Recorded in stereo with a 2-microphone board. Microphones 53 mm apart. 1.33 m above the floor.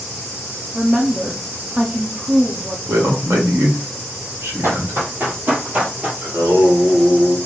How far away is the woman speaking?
About 0.5 m.